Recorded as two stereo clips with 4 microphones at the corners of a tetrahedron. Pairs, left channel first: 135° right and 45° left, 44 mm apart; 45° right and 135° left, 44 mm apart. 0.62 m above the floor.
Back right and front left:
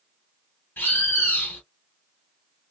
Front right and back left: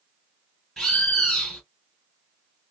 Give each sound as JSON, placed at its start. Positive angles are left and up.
{"t": 0.8, "sound": "a bird", "azimuth_deg": -120, "distance_m": 1.9}